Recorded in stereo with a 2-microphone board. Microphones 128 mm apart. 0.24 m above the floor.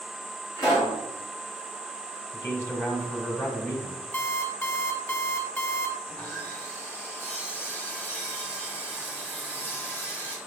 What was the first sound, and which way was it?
A pop, 35° left (ahead or behind).